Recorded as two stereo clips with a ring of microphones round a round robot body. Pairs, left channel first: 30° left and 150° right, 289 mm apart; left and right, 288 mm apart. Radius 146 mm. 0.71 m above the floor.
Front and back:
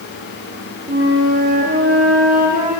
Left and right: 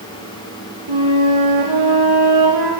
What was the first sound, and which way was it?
A flute, 90° right.